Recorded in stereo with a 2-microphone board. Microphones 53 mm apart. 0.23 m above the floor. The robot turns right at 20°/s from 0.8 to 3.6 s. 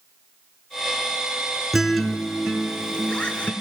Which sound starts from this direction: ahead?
A guitar, at 1.7 s.